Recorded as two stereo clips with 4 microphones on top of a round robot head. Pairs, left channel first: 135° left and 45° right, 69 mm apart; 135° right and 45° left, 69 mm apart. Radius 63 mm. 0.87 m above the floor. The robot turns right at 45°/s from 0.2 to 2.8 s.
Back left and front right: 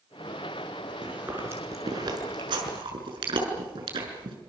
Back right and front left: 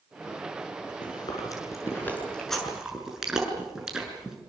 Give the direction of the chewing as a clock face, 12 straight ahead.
4 o'clock.